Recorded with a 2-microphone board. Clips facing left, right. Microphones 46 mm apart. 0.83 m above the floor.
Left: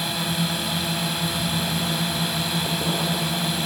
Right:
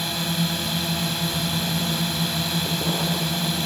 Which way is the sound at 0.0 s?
5° left (ahead or behind).